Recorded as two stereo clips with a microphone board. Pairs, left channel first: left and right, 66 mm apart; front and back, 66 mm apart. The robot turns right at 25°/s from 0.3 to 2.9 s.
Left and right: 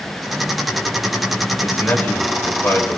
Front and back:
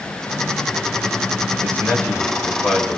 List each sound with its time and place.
1.6 s a man speaking: 35° left, 1.7 m; by 3.0 s 70° left, 1.7 m